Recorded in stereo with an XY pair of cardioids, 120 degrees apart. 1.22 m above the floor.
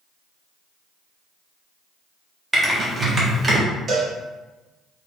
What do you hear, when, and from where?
2.5 s typing on a keyboard: 25° right, 1.2 m
3.9 s a cowbell: 45° right, 1.1 m